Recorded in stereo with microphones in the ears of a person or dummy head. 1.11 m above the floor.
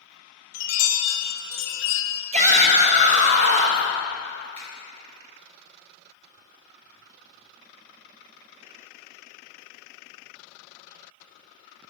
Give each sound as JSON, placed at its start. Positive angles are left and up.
{"t": 0.5, "sound": "a chime", "side_deg": 65, "distance_m": 0.6}
{"t": 2.3, "sound": "a shout", "side_deg": -45, "distance_m": 1.3}
{"t": 4.5, "sound": "a finger snap", "side_deg": -35, "distance_m": 2.5}